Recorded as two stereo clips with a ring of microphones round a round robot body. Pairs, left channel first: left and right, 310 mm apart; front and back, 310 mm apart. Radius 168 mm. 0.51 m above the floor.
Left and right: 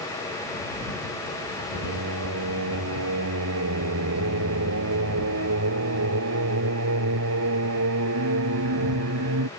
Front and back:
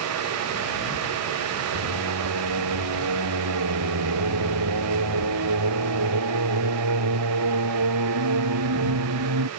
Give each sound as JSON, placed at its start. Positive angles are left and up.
{"t": 1.7, "sound": "singing", "azimuth_deg": -140}